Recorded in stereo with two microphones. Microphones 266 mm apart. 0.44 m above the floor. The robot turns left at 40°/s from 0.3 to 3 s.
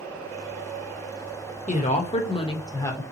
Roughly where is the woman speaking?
Left.